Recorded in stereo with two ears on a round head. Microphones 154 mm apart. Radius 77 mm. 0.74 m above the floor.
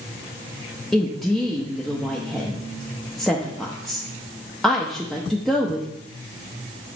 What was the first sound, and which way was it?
A woman speaking, centre (ahead or behind).